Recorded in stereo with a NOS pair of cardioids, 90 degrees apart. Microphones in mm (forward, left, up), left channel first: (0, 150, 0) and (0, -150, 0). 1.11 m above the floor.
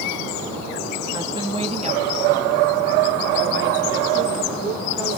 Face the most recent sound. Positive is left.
turn(degrees=-45)